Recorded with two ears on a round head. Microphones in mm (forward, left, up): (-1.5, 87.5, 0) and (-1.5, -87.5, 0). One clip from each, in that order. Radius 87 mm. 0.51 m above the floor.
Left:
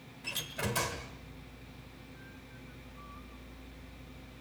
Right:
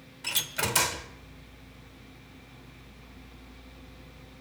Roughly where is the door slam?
Right.